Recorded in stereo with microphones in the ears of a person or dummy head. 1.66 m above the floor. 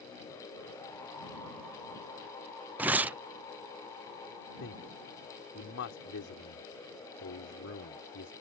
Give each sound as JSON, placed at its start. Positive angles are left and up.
{"t": 2.8, "sound": "tearing paper", "side_deg": -5}
{"t": 4.6, "sound": "a man speaking", "side_deg": 70}